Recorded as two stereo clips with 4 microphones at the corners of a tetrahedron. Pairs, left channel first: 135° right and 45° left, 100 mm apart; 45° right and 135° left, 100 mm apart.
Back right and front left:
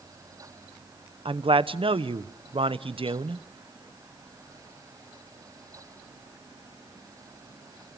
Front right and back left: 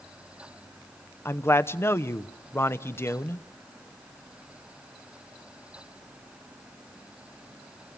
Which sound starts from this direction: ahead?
A man speaking, at 1.2 s.